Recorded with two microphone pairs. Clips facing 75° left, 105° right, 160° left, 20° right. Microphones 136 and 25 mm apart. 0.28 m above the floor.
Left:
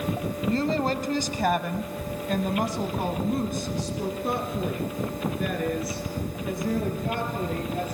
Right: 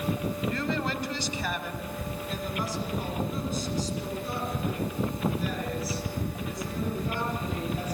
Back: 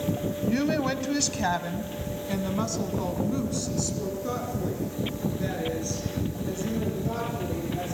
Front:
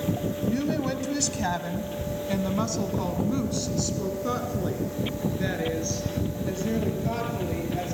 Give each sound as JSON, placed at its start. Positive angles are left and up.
{"t": 0.5, "sound": "a woman speaking", "azimuth_deg": 120, "distance_m": 1.5}